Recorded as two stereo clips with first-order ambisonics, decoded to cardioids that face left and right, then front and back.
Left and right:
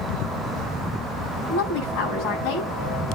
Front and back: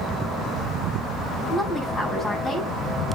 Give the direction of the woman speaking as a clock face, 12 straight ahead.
9 o'clock.